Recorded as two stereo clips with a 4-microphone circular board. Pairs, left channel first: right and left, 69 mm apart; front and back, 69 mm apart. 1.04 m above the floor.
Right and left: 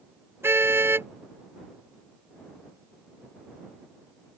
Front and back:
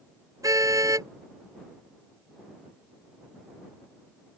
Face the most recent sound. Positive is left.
turn(degrees=145)